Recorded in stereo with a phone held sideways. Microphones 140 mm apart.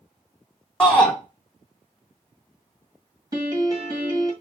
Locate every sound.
0.8 s a shout: 10° left (ahead or behind), 1.1 m
3.3 s a piano: 30° right (ahead or behind), 1.5 m